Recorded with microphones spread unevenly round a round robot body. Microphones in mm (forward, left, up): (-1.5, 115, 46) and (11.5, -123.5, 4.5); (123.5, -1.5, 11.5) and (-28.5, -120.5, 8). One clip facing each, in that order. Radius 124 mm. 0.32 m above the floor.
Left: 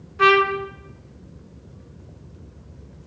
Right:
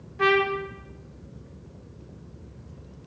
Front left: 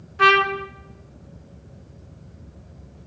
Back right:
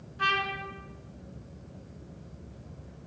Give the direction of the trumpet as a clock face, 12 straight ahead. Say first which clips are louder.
Left 4 dB, front left 14 dB; 11 o'clock.